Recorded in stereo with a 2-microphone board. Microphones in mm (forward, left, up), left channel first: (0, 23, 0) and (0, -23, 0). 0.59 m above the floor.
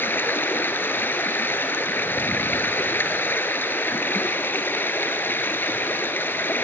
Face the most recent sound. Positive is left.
turn(degrees=55)  # may be behind; listen again after turning